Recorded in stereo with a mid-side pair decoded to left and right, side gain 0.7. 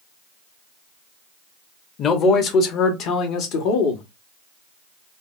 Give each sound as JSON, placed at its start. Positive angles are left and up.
{"t": 2.0, "sound": "a man speaking", "azimuth_deg": 40, "distance_m": 1.3}